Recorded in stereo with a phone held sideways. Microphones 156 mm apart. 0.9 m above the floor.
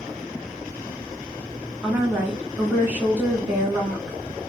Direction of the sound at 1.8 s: 10° right (ahead or behind).